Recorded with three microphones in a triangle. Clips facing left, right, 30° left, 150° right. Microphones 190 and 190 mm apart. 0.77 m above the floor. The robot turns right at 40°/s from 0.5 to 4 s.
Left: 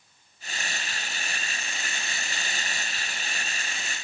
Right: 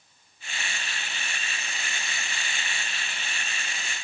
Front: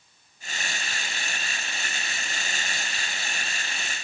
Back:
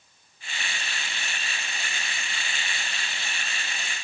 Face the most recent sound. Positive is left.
No sound to turn to.